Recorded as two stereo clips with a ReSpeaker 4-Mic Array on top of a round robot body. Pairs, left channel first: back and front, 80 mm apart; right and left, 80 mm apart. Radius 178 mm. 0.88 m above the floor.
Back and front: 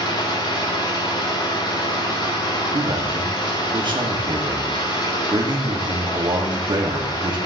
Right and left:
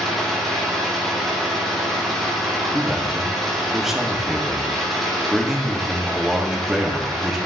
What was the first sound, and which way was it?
An engine running, straight behind.